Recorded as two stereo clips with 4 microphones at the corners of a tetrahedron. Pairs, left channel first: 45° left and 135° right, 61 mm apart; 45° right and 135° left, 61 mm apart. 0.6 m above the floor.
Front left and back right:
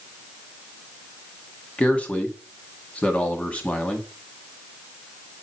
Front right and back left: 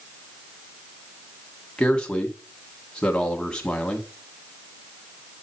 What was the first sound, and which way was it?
A man speaking, 10° left.